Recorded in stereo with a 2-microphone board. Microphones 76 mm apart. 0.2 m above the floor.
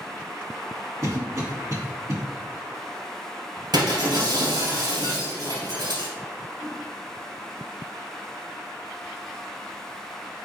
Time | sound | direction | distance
1.0 | a cough | 45° right (ahead or behind) | 1.8 m
3.7 | breaking glass | 75° right (ahead or behind) | 2 m
6.6 | a whoosh | 40° right (ahead or behind) | 1.9 m